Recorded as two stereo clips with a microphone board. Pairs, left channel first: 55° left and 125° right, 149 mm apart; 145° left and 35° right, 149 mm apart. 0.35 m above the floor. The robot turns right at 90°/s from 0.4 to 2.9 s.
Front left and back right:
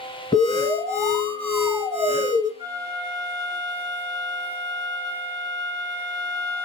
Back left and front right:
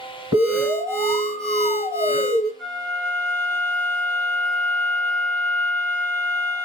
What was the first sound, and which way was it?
An alarm, 40° left.